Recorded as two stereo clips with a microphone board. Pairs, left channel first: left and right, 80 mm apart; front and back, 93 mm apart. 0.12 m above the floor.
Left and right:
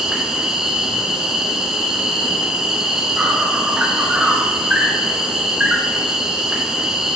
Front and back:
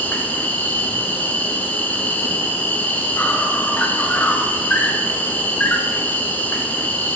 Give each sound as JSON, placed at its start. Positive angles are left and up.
{"t": 0.0, "sound": "an insect", "azimuth_deg": -25, "distance_m": 1.7}